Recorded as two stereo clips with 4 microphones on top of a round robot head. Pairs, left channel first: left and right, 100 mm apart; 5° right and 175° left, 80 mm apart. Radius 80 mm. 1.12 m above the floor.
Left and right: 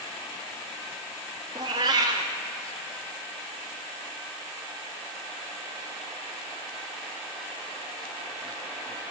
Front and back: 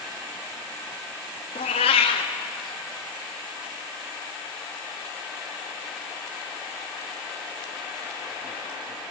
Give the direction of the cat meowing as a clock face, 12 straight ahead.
1 o'clock.